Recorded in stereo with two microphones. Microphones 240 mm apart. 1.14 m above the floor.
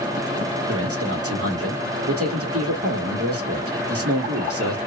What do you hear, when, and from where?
0.7 s a man speaking: 70° right (ahead or behind), 1.3 m